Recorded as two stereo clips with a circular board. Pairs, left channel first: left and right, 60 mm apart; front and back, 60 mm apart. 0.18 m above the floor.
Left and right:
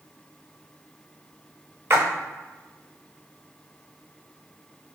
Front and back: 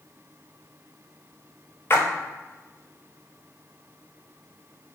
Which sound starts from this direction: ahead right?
A splash, at 1.9 s.